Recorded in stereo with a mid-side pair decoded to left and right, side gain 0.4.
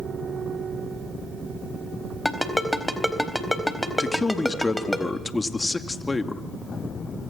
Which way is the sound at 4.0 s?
25° left.